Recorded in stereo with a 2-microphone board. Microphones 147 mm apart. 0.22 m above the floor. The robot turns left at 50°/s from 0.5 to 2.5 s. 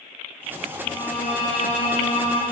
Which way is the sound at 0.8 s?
110° left.